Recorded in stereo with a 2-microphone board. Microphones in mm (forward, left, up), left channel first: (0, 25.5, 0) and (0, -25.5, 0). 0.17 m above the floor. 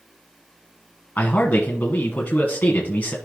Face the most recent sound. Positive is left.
turn(degrees=30)  # may be behind; listen again after turning